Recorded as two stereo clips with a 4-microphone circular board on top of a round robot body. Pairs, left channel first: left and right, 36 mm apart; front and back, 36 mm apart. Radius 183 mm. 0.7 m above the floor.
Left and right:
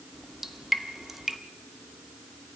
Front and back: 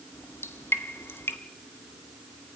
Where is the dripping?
5° right, 1.3 m.